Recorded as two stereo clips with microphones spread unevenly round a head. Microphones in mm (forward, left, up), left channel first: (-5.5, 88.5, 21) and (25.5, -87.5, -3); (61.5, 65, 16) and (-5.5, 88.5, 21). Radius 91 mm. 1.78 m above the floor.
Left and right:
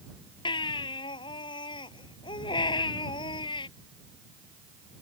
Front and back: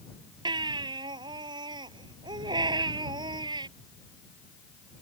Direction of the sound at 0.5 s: 165° left.